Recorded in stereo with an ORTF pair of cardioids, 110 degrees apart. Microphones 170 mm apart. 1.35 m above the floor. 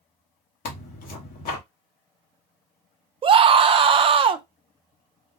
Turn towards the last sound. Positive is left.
turn(degrees=-35)